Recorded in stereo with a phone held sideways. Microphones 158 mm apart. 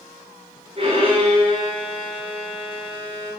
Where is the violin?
35° right (ahead or behind), 5.5 m.